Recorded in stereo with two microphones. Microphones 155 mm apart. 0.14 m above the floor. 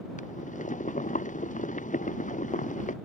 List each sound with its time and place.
0.2 s boiling: 55° left (ahead or behind)